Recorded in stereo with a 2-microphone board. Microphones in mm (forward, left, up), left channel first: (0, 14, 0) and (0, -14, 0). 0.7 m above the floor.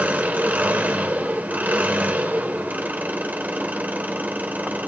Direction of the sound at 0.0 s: 80° right.